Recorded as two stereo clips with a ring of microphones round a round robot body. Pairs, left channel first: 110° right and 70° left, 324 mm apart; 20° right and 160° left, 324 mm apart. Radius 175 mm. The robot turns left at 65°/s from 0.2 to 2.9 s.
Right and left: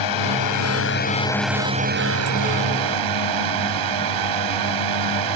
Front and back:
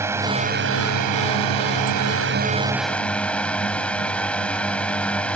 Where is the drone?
120° right; by 5.4 s 65° left.